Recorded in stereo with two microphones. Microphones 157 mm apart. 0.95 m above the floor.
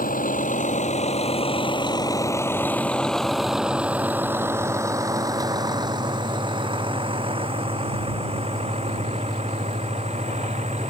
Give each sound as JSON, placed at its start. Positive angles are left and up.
{"t": 0.0, "sound": "a vehicle", "side_deg": 60}